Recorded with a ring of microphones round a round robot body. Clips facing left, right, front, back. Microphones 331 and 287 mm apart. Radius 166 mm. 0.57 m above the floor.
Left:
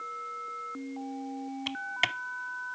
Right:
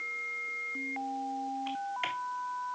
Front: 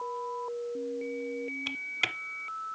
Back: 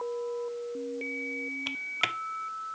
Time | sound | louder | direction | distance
1.7 | typing on a keyboard | left 1 dB, back 1 dB | 90° left | 0.7 m